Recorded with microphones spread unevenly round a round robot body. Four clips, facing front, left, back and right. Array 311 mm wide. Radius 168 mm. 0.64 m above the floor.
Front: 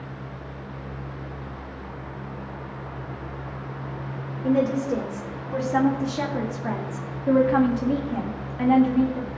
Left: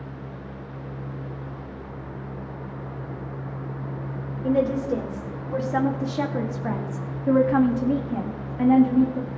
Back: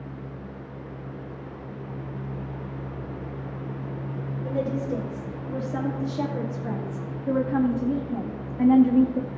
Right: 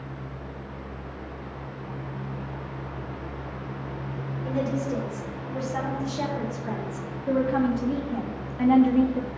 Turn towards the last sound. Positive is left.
turn(degrees=180)